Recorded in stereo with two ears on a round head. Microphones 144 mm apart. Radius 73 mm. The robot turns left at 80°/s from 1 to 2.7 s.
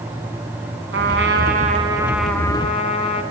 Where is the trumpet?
80° right, 3.5 m; by 3.2 s 145° left, 3.5 m.